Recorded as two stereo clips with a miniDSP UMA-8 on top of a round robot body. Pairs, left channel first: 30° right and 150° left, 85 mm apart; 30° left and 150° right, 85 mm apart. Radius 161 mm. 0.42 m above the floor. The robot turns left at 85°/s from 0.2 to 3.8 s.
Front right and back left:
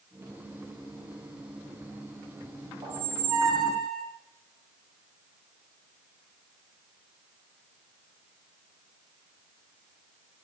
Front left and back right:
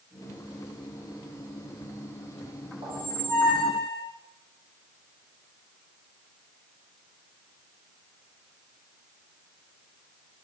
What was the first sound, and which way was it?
A squeak, 170° right.